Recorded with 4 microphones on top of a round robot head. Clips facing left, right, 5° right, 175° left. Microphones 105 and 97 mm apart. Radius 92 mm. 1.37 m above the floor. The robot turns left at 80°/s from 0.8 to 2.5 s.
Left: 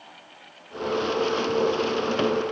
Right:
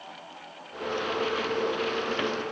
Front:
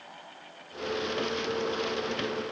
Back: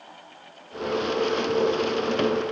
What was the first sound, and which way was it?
Only background noise.